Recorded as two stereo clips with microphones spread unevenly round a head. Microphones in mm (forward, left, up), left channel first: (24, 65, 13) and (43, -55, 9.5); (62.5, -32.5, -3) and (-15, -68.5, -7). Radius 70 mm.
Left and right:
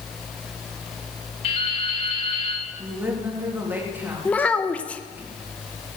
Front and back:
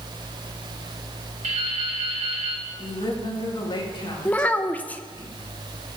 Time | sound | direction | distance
1.4 | dripping | 155° left | 2 m
2.8 | a woman speaking | 5° right | 3.5 m
4.2 | a child speaking | 45° left | 0.7 m